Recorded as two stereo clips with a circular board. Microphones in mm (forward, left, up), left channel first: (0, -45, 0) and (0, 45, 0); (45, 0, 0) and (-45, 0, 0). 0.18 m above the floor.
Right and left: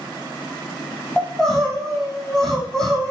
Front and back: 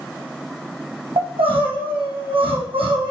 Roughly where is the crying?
Behind.